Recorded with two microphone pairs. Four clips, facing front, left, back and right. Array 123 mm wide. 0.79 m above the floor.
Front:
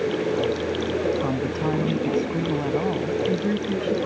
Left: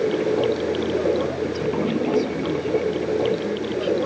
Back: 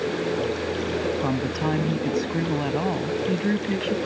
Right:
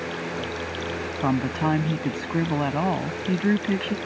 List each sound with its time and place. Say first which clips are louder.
0.0 s running water: left 11 dB, front 2 dB; 80° left
1.2 s a woman speaking: even, even; 95° right